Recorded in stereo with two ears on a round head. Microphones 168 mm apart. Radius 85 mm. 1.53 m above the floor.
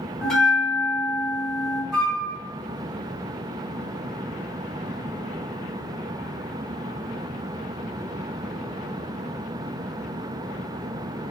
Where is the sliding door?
I don't hear a sliding door.